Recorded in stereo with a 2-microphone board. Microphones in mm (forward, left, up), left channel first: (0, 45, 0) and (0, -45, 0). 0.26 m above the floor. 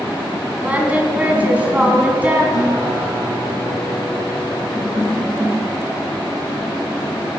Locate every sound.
0.6 s singing: 15° right (ahead or behind), 2.5 m
2.5 s a guitar: 50° left (ahead or behind), 4.5 m